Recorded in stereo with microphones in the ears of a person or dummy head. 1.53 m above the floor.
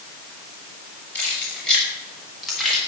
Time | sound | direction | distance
1.1 | keys jangling | 5° left (ahead or behind) | 6.5 m